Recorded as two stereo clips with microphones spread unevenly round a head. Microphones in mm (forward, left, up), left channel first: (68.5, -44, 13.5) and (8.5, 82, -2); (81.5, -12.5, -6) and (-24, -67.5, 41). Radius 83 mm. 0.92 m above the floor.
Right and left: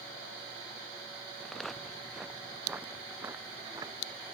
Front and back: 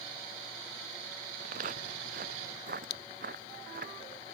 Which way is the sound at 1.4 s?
150° right.